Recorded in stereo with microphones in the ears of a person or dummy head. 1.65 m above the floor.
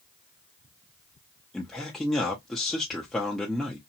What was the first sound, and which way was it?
A man speaking, 5° left (ahead or behind).